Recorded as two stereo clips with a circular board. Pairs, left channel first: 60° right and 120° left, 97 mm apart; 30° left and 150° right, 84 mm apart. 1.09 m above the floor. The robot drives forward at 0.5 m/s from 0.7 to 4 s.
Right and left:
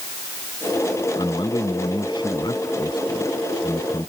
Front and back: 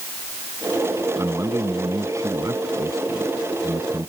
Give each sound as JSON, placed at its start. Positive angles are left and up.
{"t": 1.2, "sound": "a man speaking", "azimuth_deg": -95}